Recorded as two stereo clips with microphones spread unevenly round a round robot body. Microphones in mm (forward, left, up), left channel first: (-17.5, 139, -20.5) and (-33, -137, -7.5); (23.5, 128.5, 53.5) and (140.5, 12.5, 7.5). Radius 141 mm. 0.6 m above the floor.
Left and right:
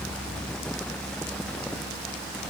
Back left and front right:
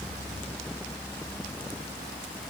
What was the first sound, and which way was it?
Only background noise.